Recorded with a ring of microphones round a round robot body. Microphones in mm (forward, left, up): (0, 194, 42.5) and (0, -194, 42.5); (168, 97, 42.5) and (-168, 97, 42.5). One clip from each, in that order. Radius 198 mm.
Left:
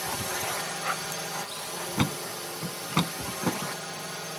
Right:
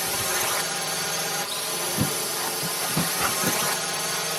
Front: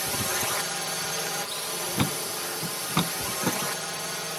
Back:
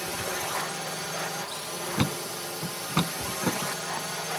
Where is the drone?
35° right; by 4.4 s 75° right.